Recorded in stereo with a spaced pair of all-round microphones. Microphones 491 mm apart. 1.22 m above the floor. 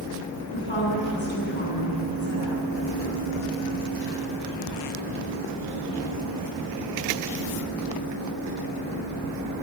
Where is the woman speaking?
65° left (ahead or behind), 10 m.